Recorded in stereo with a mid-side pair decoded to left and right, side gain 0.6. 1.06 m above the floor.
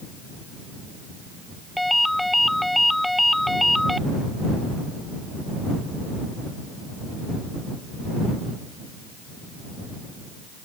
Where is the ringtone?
5° left.